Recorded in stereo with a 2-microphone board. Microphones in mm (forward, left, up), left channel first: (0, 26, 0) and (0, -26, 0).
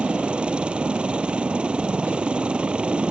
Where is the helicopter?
20° right (ahead or behind).